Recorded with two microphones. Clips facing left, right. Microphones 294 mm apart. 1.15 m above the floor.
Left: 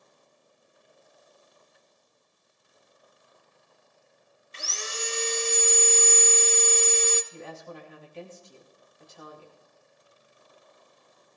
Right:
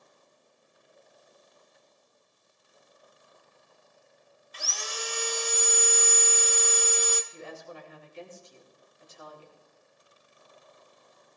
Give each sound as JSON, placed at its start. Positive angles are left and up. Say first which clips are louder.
{"t": 4.5, "sound": "sawing", "louder": "left 2 dB", "side_deg": 25, "distance_m": 0.7}
{"t": 7.3, "sound": "a woman speaking", "louder": "left 1 dB", "side_deg": 75, "distance_m": 2.5}